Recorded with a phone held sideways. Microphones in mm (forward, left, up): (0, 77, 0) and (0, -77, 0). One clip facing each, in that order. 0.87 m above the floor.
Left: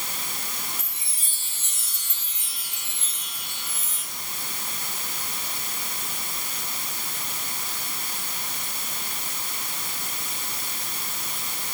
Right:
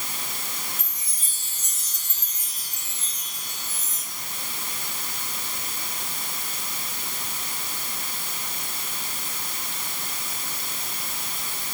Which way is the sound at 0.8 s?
40° right (ahead or behind).